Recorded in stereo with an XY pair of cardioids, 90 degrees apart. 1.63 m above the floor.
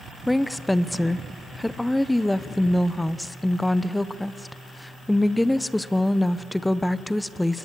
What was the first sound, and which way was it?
A woman speaking, 10° left.